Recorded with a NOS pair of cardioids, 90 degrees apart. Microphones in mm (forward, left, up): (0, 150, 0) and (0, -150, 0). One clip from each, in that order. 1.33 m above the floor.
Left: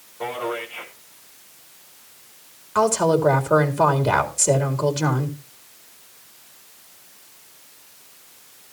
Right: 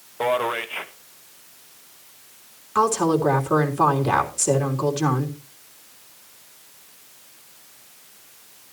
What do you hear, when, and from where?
0.2 s a man speaking: 70° right, 2.0 m
2.8 s a woman speaking: 5° left, 3.5 m